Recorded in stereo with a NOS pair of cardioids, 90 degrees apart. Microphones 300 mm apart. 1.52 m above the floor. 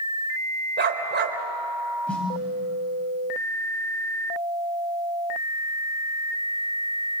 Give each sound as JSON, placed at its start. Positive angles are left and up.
{"t": 0.8, "sound": "a dog barking", "azimuth_deg": -40, "distance_m": 3.0}
{"t": 2.1, "sound": "a snare drum", "azimuth_deg": 5, "distance_m": 8.0}